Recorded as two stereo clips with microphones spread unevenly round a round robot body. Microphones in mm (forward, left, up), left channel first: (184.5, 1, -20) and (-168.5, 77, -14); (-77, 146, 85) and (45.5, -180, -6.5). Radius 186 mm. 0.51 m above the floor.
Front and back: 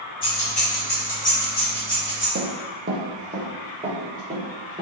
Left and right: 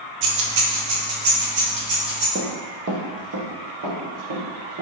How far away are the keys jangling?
About 0.6 m.